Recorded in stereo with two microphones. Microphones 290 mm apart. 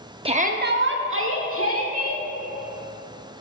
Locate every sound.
0.2 s a shout: 20° right (ahead or behind), 0.6 m; by 2.2 s 50° right (ahead or behind), 1.6 m